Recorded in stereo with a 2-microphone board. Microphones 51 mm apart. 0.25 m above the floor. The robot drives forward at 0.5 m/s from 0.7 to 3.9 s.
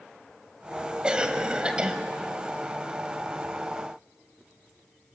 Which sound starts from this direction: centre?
A cough, at 1.0 s.